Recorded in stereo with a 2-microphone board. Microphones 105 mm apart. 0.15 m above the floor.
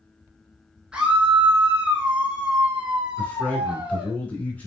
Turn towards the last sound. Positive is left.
turn(degrees=15)  # may be behind; listen again after turning